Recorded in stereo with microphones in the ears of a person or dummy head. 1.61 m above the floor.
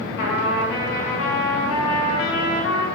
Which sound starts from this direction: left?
A trumpet, at 0.2 s.